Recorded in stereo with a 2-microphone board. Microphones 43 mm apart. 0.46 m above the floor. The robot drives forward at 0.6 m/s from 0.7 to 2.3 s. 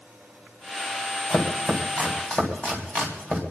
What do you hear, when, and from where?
1.3 s chopping: 35° left (ahead or behind), 3 m; by 3.4 s 30° left (ahead or behind), 3.5 m